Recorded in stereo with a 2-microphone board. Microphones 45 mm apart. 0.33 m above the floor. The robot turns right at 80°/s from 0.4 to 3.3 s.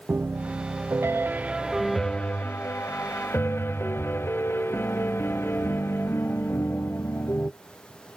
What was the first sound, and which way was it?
A piano, 110° right.